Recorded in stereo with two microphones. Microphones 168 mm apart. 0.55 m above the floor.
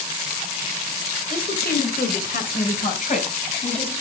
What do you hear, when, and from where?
1.3 s a woman speaking: 60° left (ahead or behind), 2.5 m; by 3.9 s 35° left (ahead or behind), 4 m